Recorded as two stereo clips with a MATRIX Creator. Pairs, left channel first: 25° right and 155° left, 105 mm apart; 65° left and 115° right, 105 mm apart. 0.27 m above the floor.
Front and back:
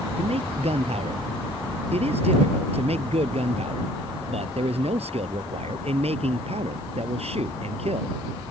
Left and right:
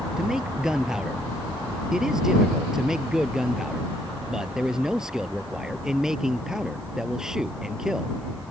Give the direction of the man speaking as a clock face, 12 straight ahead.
7 o'clock.